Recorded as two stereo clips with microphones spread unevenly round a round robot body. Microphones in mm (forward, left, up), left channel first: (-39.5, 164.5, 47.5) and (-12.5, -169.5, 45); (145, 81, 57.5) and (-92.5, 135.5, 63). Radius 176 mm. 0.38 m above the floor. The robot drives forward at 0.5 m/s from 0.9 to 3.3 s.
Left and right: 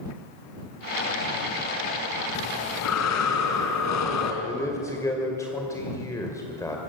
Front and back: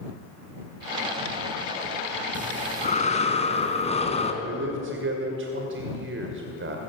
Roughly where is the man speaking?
Behind.